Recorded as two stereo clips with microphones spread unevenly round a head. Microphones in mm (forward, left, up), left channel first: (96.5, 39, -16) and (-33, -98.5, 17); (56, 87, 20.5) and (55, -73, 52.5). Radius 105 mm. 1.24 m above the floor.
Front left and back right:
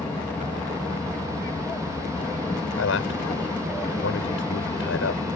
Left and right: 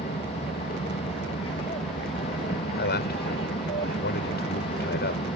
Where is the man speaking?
80° left.